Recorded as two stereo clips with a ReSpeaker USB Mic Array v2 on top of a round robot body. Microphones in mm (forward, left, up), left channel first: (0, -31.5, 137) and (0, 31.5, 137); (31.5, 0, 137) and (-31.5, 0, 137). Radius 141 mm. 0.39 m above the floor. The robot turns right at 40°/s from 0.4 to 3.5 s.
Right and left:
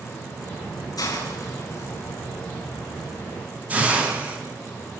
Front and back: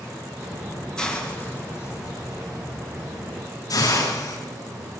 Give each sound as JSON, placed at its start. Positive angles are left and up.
{"t": 1.0, "sound": "a hiss", "azimuth_deg": -75, "distance_m": 8.0}